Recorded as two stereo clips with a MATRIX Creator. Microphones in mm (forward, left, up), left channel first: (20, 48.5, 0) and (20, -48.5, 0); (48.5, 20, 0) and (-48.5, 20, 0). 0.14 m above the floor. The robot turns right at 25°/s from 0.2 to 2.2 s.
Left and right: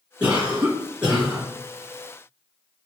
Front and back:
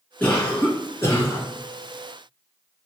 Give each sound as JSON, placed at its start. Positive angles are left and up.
{"t": 0.2, "sound": "a cough", "azimuth_deg": -45, "distance_m": 1.5}